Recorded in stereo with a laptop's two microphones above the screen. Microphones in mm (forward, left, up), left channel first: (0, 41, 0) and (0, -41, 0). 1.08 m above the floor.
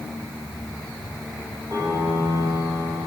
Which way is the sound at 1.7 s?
40° right (ahead or behind).